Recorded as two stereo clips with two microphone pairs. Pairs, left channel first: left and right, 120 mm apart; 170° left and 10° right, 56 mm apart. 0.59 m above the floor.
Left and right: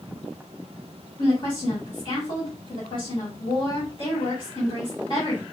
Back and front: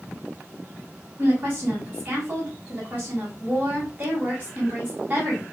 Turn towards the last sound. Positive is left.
turn(degrees=45)